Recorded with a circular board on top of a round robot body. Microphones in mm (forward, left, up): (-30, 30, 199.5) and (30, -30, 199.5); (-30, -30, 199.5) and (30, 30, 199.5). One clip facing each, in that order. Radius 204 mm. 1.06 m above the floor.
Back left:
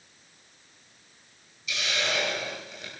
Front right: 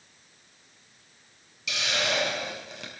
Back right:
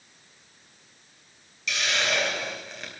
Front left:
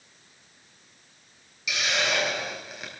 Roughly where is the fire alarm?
No fire alarm in this recording.